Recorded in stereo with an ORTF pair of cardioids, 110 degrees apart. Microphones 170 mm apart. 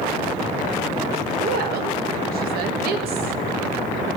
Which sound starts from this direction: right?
A woman speaking, at 1.4 s.